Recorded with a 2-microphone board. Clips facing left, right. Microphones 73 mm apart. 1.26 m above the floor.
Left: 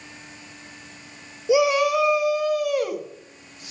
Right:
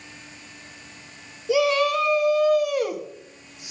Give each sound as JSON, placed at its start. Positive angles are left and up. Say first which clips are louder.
{"t": 1.5, "sound": "a shout", "louder": "left 2 dB", "side_deg": 20, "distance_m": 1.1}